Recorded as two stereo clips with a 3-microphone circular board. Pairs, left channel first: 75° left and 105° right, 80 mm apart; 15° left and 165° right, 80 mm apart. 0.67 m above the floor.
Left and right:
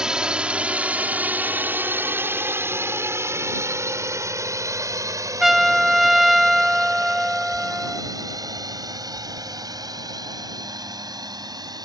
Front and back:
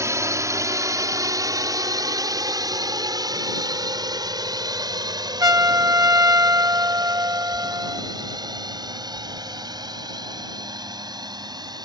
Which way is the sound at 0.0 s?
Straight behind.